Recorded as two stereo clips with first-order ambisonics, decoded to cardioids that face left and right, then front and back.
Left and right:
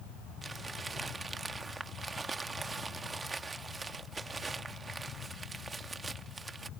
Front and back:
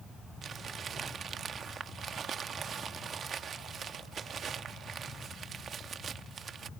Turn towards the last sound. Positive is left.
turn(degrees=-150)